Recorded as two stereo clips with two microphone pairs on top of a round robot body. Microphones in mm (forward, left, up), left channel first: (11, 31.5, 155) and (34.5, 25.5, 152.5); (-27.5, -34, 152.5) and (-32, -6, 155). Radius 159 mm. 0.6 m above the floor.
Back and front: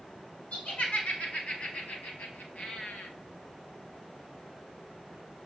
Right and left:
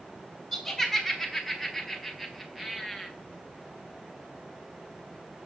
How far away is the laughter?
About 6 m.